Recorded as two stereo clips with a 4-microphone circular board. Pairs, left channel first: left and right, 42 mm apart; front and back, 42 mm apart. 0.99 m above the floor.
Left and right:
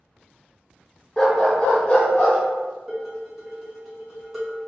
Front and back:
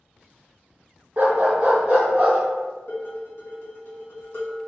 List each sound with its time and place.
1.2 s a dog barking: 155° left, 0.7 m; by 2.4 s 135° left, 1.7 m
2.9 s dishes clattering: 5° right, 1.4 m